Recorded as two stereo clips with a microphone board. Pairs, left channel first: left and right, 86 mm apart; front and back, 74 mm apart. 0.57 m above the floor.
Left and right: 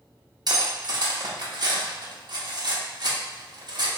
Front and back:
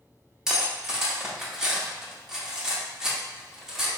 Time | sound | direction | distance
0.5 | cutlery clinking | 100° right | 0.7 m